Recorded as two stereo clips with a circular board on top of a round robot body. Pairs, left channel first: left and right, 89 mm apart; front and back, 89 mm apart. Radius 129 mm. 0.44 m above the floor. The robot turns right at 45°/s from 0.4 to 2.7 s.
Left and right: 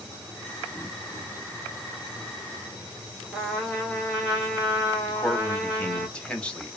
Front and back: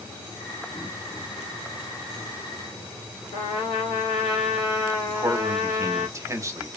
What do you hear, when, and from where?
3.3 s a trumpet: 5° right, 1.5 m
5.1 s a man speaking: 160° left, 1.0 m